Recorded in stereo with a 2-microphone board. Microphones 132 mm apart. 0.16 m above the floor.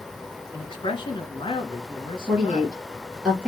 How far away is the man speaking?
About 1.7 m.